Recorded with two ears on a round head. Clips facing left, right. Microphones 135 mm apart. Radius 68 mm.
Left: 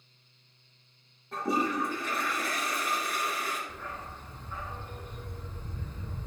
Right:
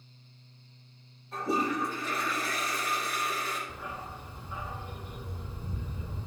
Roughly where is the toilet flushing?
Left.